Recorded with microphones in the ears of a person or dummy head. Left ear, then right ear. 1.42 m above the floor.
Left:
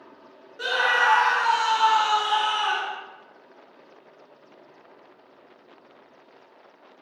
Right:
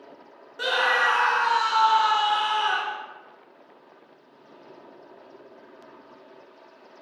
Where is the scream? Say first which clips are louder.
Left 1 dB; 15° right (ahead or behind), 0.6 m; by 3.0 s 70° left (ahead or behind), 1.2 m.